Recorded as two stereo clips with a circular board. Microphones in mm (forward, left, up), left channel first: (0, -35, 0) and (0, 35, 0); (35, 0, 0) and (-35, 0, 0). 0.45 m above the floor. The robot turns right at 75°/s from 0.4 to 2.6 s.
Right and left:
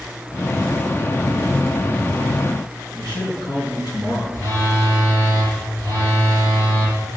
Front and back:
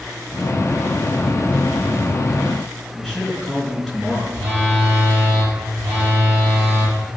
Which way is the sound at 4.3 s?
115° right.